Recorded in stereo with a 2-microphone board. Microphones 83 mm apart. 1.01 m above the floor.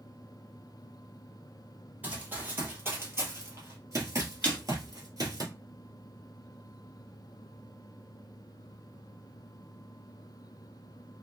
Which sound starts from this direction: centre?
A snare drum, at 4.4 s.